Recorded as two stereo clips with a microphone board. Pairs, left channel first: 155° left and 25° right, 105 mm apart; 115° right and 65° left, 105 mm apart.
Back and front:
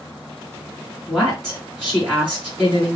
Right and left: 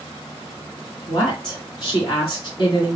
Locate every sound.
1.1 s a woman speaking: 115° right, 2.0 m